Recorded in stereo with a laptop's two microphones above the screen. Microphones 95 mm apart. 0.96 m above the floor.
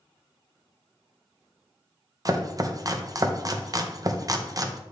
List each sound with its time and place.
2.2 s chopping: 35° right (ahead or behind), 0.6 m